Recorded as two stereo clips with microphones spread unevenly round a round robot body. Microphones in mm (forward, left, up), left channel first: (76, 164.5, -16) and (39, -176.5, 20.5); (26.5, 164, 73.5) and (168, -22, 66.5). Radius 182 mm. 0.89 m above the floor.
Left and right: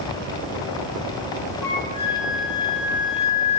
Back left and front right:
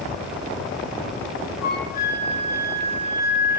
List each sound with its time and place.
1.6 s a flute: 130° left, 6.5 m